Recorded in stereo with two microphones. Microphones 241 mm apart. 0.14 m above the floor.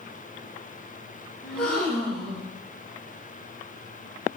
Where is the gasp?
5° left (ahead or behind), 1.1 m.